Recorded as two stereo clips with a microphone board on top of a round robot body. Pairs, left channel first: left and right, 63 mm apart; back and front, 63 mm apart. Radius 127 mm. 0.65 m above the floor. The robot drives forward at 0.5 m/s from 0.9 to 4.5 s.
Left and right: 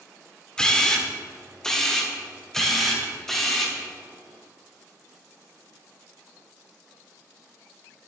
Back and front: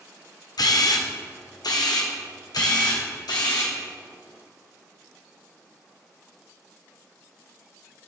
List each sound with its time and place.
0.6 s a camera shutter: 170° left, 1.4 m; by 3.8 s 175° left, 3 m